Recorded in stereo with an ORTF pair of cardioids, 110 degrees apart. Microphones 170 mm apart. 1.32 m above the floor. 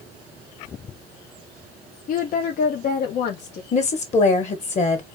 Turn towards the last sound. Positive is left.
turn(degrees=40)